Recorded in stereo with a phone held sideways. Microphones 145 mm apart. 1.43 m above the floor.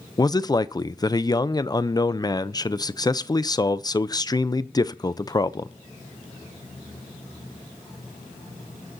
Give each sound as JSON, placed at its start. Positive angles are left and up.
{"t": 0.2, "sound": "a man speaking", "side_deg": 30, "distance_m": 0.6}